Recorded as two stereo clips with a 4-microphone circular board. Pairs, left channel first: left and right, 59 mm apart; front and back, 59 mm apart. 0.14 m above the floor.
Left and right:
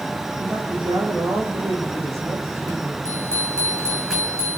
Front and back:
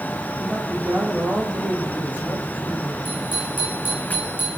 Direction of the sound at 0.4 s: 115° right.